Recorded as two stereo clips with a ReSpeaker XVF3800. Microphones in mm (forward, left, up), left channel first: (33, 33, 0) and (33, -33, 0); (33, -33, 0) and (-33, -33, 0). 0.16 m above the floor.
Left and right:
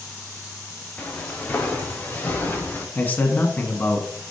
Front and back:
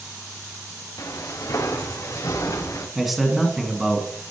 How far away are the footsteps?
About 3 m.